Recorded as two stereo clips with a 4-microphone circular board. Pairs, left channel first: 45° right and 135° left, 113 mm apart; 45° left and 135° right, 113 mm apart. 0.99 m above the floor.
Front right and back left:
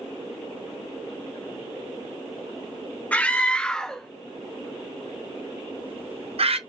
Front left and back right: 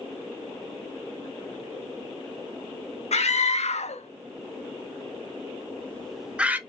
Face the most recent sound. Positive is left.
turn(degrees=155)